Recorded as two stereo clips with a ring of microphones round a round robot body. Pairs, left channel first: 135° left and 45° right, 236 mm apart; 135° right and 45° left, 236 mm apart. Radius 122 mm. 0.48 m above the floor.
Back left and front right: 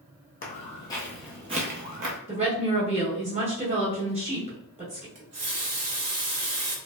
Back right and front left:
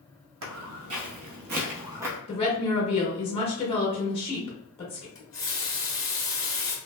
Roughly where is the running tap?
Ahead right.